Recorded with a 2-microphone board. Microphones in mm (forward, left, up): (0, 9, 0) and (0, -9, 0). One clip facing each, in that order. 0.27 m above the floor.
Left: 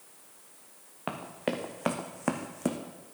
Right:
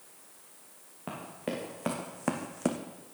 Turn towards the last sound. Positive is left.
turn(degrees=-20)  # may be behind; listen again after turning